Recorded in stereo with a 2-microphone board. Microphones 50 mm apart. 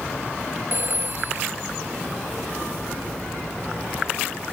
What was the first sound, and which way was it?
A phone ringing, 45° right (ahead or behind).